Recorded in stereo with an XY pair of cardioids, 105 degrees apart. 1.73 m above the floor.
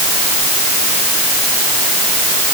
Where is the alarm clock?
I don't hear an alarm clock.